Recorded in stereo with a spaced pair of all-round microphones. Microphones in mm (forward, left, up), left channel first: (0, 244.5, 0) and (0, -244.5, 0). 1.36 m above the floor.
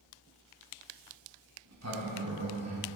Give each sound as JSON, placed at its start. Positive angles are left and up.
{"t": 1.6, "sound": "a sliding door", "side_deg": -35, "distance_m": 1.1}